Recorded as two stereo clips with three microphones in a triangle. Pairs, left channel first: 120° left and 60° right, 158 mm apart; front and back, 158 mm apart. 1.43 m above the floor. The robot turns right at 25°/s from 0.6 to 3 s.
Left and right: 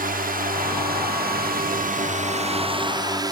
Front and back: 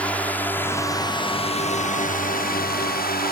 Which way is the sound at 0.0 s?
80° right.